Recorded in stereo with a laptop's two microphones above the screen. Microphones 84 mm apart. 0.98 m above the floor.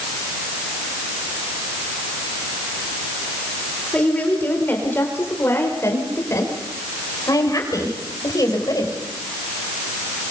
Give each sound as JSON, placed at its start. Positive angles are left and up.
{"t": 3.9, "sound": "a woman speaking", "side_deg": 15, "distance_m": 4.0}